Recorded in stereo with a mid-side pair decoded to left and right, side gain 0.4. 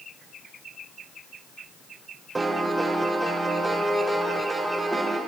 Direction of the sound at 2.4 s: 25° right.